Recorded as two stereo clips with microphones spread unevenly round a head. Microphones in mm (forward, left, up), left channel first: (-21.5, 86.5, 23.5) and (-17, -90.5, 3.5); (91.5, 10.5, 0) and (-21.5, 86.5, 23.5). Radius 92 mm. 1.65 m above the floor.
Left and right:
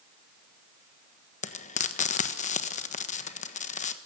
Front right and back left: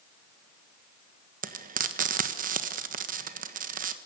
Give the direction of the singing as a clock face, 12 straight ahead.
I don't hear singing.